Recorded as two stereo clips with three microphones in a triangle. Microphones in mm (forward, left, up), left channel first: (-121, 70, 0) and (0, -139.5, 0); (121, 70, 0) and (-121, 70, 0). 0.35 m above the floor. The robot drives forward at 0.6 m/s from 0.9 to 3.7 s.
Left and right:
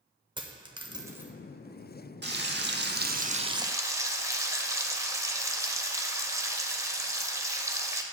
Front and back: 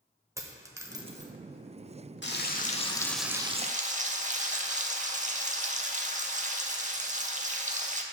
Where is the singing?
I don't hear singing.